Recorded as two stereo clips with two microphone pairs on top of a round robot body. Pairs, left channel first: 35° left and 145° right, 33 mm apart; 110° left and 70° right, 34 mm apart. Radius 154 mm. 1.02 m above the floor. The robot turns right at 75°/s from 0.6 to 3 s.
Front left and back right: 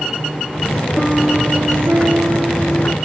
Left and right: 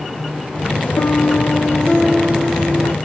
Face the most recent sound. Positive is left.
turn(degrees=-80)